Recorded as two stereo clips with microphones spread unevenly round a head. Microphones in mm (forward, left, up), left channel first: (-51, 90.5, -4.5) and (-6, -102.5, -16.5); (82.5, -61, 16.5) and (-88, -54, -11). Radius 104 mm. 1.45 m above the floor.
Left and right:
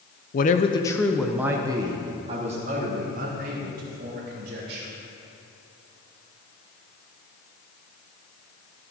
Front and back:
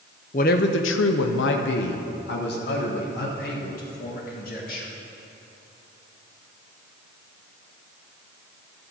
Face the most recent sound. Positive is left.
turn(degrees=-30)